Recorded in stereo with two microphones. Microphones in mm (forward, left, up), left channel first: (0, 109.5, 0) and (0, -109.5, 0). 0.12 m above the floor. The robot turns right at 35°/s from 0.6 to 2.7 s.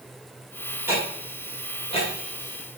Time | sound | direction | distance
0.9 | ticking | 10° right (ahead or behind) | 6 m